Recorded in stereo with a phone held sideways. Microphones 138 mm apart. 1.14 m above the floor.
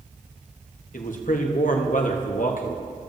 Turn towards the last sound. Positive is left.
turn(degrees=70)  # may be behind; listen again after turning